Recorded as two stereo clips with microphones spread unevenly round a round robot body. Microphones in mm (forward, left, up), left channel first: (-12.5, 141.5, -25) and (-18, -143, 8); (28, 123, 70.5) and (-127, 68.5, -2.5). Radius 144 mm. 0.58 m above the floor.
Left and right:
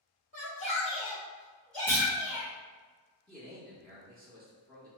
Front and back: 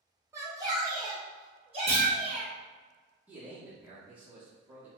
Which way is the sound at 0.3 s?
145° left.